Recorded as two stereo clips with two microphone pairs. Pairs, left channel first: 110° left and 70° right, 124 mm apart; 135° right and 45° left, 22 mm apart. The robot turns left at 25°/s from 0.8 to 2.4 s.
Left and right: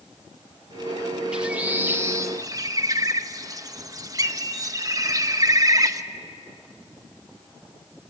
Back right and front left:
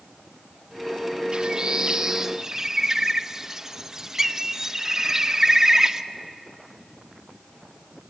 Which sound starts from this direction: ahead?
A bird, at 1.3 s.